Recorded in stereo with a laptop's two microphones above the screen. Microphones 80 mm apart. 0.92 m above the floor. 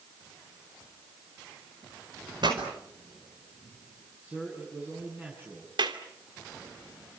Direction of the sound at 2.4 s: 70° right (ahead or behind).